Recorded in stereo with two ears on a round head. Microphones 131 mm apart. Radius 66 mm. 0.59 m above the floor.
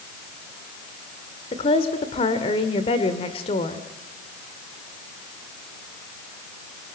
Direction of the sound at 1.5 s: 40° left (ahead or behind).